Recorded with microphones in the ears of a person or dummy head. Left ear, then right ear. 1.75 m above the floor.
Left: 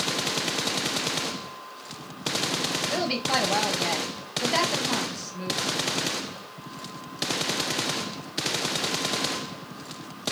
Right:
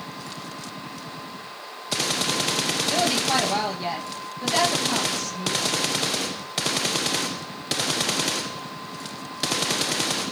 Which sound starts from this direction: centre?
A woman speaking, at 2.9 s.